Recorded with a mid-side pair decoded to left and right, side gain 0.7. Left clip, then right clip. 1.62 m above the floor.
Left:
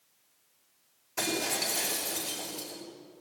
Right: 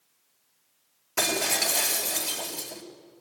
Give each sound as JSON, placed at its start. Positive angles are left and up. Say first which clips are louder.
{"t": 1.2, "sound": "breaking glass", "louder": "right 5 dB", "azimuth_deg": -45, "distance_m": 6.0}